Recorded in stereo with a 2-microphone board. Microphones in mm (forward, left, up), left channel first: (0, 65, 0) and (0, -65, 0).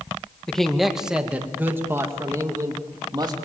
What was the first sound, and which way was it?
A man speaking, 5° left (ahead or behind).